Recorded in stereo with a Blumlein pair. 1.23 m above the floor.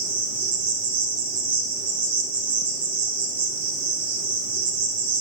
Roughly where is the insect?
Ahead right.